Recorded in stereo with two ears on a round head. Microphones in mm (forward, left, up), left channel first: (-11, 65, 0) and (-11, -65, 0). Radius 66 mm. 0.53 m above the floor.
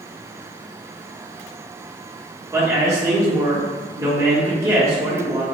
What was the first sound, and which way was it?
A man speaking, 25° right (ahead or behind).